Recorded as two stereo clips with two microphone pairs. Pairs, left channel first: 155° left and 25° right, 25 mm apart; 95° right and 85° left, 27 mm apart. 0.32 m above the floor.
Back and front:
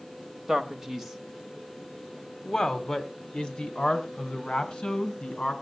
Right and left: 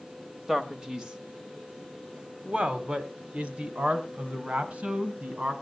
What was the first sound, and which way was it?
A man speaking, 30° left.